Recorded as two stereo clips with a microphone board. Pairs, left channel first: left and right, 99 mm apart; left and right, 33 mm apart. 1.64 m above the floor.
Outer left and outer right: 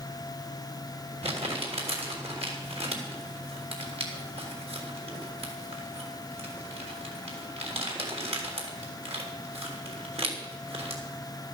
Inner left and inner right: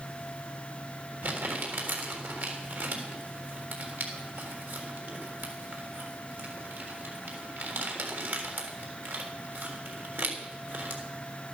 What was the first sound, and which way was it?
Crumpling, 85° right.